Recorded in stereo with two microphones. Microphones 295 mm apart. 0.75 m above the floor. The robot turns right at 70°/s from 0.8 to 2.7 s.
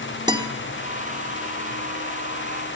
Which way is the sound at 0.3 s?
15° right (ahead or behind).